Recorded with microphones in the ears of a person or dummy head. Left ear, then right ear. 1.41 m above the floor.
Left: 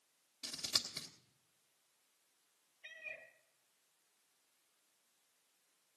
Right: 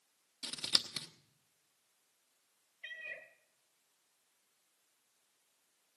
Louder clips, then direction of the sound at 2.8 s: Right 4 dB; 45° right (ahead or behind).